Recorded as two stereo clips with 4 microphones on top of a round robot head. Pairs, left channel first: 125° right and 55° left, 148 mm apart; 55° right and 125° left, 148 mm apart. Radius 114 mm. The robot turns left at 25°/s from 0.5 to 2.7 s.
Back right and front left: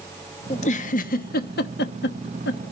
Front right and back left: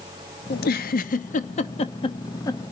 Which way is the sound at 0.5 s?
75° right.